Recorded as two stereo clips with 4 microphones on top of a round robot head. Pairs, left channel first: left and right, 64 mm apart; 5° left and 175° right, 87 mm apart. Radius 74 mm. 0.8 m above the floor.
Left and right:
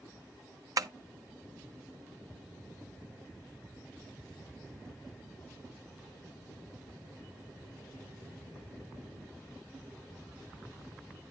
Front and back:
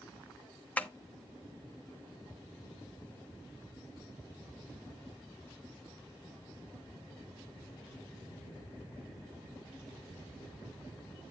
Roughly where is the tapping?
Right.